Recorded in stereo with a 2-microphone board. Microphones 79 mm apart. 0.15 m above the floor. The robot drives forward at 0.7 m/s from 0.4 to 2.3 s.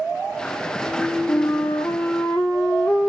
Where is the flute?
30° left (ahead or behind), 0.6 m; by 3.1 s 15° left (ahead or behind), 1.3 m.